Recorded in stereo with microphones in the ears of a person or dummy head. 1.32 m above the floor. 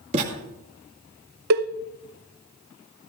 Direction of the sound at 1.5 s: 60° right (ahead or behind).